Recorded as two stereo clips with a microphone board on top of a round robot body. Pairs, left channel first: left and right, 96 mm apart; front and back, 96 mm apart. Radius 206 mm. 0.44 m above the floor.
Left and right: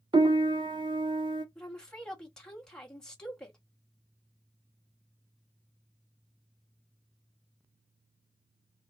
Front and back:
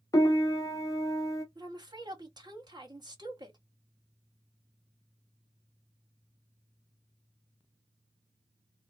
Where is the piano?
55° right, 0.7 m.